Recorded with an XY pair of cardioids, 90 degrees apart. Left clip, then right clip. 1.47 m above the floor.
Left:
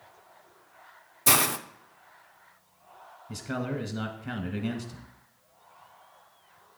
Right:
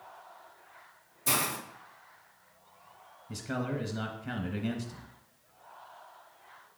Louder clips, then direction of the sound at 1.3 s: Left 6 dB; 65° left.